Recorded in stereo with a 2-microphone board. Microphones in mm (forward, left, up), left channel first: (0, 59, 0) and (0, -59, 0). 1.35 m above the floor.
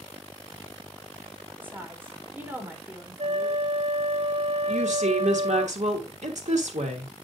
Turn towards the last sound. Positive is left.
turn(degrees=-80)